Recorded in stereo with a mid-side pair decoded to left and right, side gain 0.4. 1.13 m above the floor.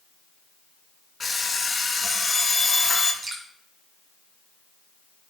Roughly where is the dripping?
Ahead right.